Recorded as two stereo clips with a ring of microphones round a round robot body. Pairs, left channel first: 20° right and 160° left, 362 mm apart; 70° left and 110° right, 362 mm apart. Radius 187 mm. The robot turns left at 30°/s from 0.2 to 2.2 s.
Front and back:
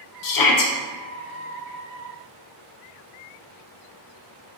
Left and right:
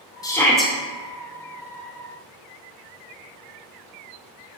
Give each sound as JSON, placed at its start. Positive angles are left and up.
{"t": 0.2, "sound": "a shout", "azimuth_deg": -10, "distance_m": 0.8}